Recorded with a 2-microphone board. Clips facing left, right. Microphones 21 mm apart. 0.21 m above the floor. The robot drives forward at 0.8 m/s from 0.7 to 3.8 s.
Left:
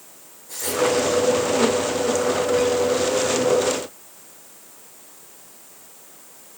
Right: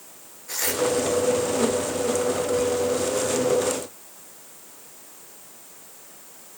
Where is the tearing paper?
85° right, 4 m.